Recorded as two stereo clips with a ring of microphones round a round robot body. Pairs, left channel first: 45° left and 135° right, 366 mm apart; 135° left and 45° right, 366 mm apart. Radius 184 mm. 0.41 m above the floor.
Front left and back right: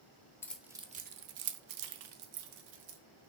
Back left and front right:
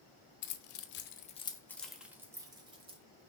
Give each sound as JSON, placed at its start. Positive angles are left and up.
{"t": 0.4, "sound": "keys jangling", "azimuth_deg": 125, "distance_m": 0.7}